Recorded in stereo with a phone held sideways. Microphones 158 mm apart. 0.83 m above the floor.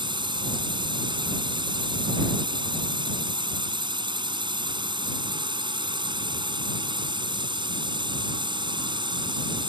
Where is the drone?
30° right (ahead or behind).